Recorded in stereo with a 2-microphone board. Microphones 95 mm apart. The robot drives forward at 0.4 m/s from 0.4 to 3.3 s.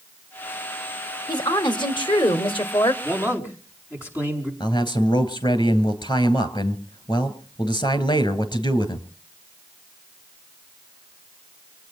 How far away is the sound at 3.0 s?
About 5 m.